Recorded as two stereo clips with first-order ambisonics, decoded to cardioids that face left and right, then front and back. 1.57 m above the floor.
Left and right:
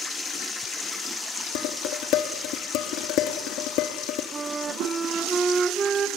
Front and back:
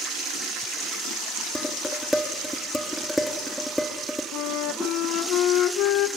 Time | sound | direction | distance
1.6 | dishes clattering | 90° left | 1.6 m
4.3 | a flute | 20° right | 0.8 m